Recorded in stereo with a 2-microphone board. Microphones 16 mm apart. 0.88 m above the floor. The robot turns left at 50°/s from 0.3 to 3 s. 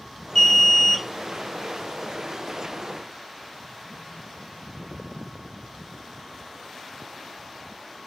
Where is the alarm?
140° left, 0.8 m; by 1.1 s 105° left, 0.8 m.